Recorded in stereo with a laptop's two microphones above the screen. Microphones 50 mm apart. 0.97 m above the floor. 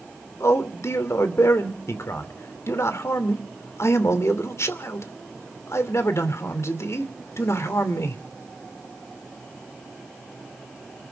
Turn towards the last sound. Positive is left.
turn(degrees=70)  # may be behind; listen again after turning